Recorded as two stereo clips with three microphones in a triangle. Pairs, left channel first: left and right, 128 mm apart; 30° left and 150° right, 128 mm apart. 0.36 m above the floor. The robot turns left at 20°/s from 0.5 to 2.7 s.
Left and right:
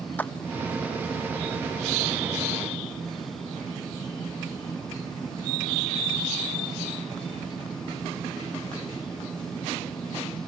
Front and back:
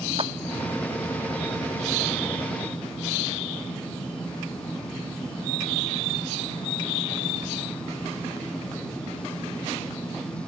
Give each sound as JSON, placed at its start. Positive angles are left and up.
{"t": 0.2, "sound": "a clap", "azimuth_deg": 165}